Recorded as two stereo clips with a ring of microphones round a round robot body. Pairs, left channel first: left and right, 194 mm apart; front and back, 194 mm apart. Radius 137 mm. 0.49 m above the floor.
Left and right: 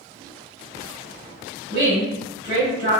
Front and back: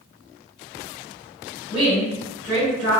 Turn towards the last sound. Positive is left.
turn(degrees=-95)